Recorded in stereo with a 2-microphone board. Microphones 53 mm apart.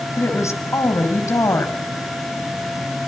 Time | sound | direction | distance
0.2 | a woman speaking | 75° left (ahead or behind) | 5.5 m